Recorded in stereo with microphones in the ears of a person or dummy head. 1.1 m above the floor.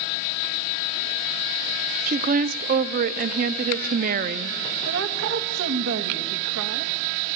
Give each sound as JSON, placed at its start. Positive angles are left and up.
{"t": 2.1, "sound": "a woman speaking", "side_deg": -35, "distance_m": 0.5}
{"t": 4.8, "sound": "a woman speaking", "side_deg": -65, "distance_m": 1.2}